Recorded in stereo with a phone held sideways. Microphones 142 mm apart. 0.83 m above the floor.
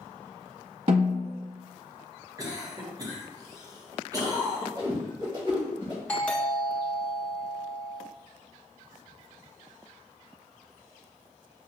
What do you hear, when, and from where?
0.9 s a snare drum: 45° right (ahead or behind), 0.9 m
2.4 s a cough: 25° right (ahead or behind), 0.9 m
4.8 s a whoosh: 35° right (ahead or behind), 1.2 m
6.1 s a doorbell: 10° left (ahead or behind), 1.4 m